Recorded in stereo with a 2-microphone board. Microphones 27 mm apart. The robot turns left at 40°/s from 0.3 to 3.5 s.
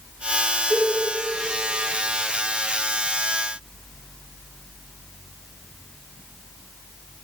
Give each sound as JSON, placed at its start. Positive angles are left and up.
{"t": 0.7, "sound": "a cowbell", "side_deg": 0, "distance_m": 3.0}